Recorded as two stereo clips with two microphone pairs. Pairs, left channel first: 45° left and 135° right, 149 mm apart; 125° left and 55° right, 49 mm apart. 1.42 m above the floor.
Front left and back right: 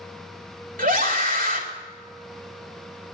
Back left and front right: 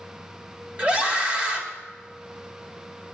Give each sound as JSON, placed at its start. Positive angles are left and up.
{"t": 0.8, "sound": "a scream", "azimuth_deg": -110, "distance_m": 3.0}